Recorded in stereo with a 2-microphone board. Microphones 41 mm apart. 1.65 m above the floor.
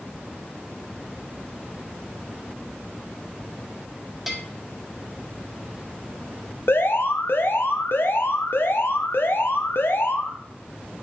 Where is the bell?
5° right (ahead or behind), 1.2 m.